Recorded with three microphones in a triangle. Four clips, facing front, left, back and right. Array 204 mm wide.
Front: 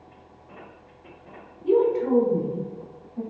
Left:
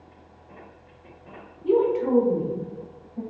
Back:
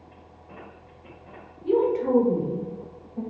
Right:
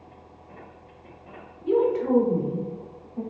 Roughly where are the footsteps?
I don't hear footsteps.